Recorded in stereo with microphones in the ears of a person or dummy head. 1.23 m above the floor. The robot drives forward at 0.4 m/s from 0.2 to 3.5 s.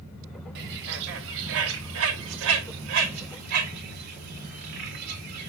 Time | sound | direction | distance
0.6 | a bird | 60° right (ahead or behind) | 1.2 m